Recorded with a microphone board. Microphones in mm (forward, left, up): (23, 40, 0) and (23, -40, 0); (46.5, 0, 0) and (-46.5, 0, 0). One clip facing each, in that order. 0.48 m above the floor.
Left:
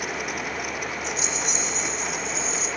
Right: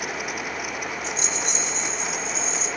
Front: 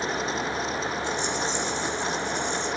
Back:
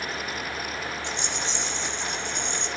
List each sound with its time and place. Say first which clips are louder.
1.0 s a rattle: even, front 5 dB; 175° left, 2 m